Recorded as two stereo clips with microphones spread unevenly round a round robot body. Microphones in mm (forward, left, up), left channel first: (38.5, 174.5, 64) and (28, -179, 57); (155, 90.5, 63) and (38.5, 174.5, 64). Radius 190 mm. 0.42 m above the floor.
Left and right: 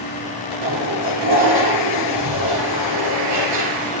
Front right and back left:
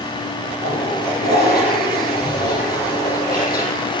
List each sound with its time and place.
0.6 s a toilet flushing: 50° right, 7 m